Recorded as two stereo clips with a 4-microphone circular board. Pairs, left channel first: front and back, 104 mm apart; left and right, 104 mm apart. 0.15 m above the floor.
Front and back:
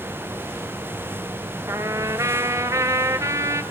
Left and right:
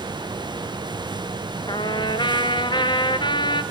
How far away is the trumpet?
About 1.1 m.